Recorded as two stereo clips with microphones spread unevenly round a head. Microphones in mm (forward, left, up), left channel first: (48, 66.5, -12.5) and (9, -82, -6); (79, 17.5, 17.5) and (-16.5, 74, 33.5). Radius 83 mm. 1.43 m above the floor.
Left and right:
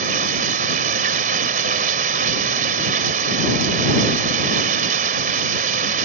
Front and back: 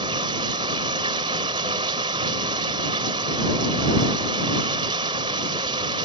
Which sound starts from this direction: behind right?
Running water, at 0.0 s.